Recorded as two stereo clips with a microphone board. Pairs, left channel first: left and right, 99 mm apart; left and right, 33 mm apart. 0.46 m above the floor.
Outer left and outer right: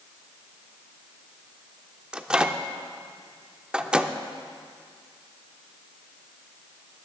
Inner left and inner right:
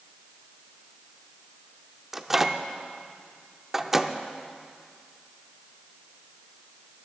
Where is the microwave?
10° right (ahead or behind), 0.5 m.